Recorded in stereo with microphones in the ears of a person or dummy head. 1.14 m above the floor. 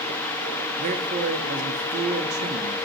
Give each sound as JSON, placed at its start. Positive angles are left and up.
{"t": 0.8, "sound": "a man speaking", "side_deg": -45, "distance_m": 2.0}